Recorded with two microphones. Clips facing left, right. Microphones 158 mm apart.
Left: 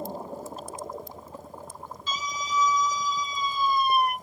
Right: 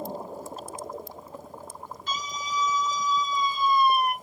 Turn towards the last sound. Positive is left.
turn(degrees=55)  # may be behind; listen again after turning